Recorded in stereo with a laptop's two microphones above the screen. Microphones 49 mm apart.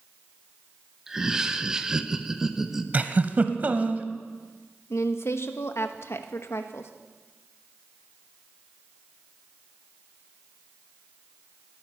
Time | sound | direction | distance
1.1 | laughter | 10° right (ahead or behind) | 0.9 m
2.9 | a giggle | 35° right (ahead or behind) | 0.9 m
4.9 | a woman speaking | 65° left (ahead or behind) | 1.2 m